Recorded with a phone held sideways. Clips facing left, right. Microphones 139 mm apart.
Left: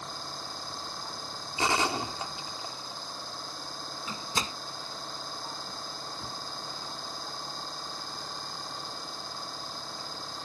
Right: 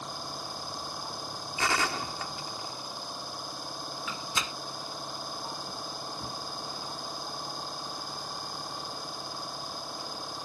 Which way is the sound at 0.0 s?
10° right (ahead or behind).